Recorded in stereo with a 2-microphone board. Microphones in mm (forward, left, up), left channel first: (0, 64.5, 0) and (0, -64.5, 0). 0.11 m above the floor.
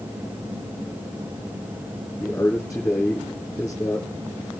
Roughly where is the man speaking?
Centre.